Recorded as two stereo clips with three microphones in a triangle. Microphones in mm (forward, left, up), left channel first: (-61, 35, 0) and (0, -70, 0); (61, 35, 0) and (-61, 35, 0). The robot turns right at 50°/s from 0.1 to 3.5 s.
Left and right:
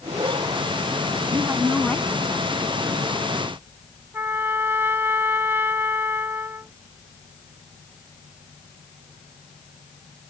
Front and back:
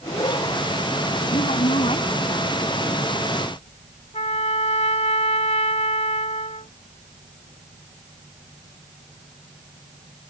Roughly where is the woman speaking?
Ahead.